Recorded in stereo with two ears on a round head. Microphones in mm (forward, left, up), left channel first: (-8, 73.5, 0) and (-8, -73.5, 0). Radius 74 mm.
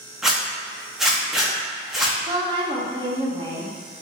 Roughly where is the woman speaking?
Right.